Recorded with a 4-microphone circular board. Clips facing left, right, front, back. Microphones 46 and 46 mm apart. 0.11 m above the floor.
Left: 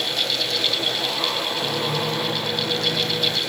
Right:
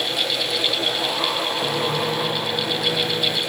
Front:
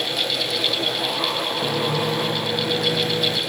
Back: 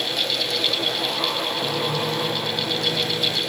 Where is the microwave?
15° right, 1.3 m.